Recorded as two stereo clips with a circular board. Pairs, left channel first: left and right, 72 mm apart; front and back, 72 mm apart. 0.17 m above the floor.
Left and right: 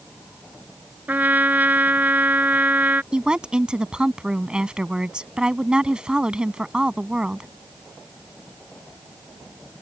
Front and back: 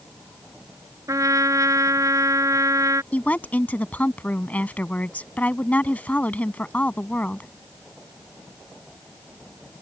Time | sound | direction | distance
1.1 | a trumpet | 150° right | ?
3.1 | a woman speaking | 30° right | ?